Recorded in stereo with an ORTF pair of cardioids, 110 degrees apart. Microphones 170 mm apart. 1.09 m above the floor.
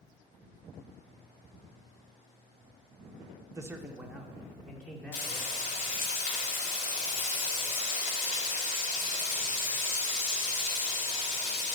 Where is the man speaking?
20° right, 0.7 m; by 5.6 s 10° left, 3 m.